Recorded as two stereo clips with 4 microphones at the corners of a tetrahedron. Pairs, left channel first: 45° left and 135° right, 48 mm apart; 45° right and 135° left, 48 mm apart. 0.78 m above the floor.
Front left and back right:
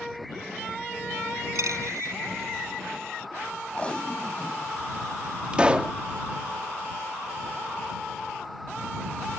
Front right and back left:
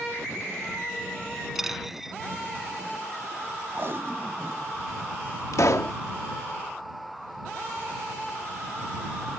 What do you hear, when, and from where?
1.6 s a dropped coin: 140° right
3.7 s tape being pulled: 110° left
5.5 s a pop: 65° right